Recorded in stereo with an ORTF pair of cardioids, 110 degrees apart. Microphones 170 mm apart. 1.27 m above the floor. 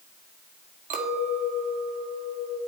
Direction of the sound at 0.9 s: 55° right.